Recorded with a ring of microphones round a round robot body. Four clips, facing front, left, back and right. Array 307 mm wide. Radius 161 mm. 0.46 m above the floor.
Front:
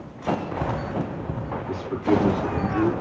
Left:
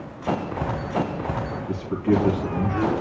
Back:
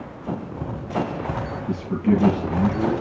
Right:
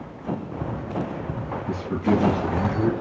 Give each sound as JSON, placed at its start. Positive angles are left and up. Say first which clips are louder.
{"t": 1.7, "sound": "a man speaking", "louder": "even, back 1 dB", "azimuth_deg": -140, "distance_m": 4.5}